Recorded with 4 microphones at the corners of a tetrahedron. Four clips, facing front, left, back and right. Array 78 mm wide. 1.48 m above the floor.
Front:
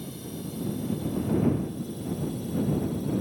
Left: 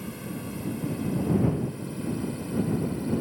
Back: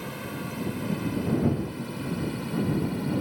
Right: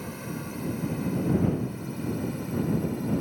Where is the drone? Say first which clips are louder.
Even, back 3 dB; 160° right; by 3.2 s 175° right.